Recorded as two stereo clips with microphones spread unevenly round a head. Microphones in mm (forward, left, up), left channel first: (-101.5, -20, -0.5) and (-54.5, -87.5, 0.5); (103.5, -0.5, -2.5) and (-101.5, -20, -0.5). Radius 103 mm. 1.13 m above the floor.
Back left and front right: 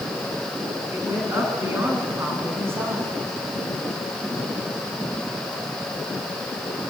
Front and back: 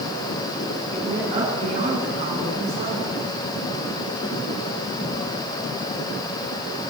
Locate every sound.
0.9 s a woman speaking: 110° right, 9.5 m; by 3.1 s 115° right, 8.5 m